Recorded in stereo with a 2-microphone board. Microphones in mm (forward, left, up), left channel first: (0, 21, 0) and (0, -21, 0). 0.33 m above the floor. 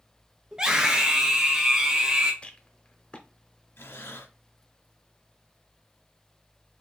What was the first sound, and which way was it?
A scream, 20° right (ahead or behind).